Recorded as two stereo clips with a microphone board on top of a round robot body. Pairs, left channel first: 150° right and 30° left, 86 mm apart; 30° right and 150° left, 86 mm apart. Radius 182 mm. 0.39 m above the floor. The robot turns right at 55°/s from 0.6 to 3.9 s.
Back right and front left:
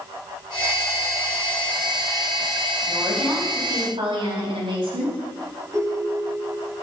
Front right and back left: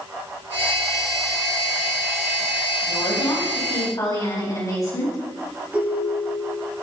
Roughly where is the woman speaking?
Ahead right.